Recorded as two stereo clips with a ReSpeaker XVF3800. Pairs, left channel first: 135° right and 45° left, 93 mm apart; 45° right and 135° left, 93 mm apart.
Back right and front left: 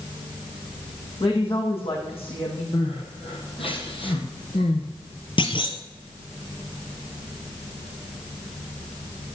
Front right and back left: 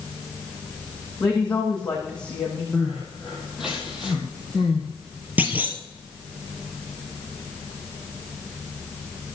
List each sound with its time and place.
1.2 s a woman speaking: 125° right, 8 m
2.7 s crying: 140° right, 4.5 m
5.4 s a clunk: 155° right, 1.8 m